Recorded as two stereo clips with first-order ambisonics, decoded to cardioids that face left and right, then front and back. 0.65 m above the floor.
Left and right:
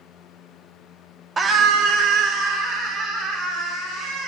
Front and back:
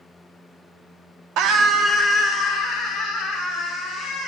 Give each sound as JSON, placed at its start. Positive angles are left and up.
{"t": 1.4, "sound": "a scream", "azimuth_deg": -160, "distance_m": 0.8}